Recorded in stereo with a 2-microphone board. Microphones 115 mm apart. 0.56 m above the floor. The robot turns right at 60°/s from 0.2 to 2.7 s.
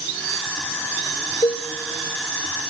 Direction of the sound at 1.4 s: 50° left (ahead or behind).